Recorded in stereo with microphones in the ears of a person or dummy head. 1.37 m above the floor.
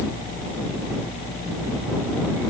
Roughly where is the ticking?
I don't hear ticking.